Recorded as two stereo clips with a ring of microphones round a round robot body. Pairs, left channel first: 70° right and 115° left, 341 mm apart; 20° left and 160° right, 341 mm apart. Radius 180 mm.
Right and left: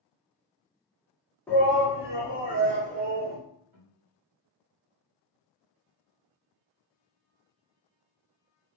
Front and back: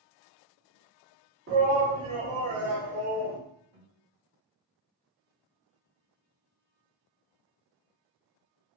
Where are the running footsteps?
No running footsteps in this recording.